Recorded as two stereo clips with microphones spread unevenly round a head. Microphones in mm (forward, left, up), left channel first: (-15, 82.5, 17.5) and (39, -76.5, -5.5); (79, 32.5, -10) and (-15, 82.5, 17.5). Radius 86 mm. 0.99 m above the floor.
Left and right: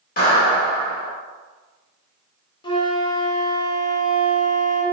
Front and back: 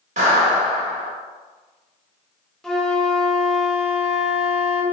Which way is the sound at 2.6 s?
45° left.